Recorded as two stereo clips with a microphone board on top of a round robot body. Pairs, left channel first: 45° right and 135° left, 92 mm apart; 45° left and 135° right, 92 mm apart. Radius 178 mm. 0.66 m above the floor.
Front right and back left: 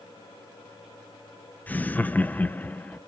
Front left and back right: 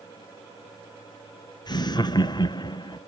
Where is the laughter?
25° left, 0.8 m.